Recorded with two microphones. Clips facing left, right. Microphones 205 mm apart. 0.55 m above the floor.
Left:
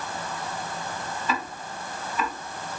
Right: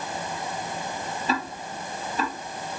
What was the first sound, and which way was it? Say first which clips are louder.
Ticking: right 3 dB; 35° right (ahead or behind).